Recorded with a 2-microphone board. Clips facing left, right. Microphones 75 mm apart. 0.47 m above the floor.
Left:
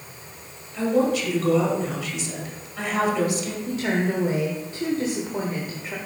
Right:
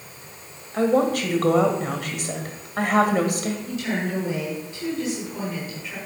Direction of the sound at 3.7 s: 45° left (ahead or behind).